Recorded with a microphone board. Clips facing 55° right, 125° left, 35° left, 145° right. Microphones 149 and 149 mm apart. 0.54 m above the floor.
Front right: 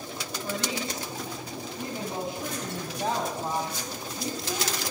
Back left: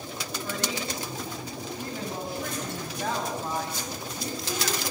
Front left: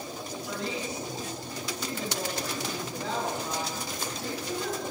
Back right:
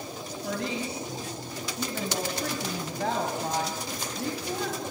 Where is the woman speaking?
125° right, 4.5 m.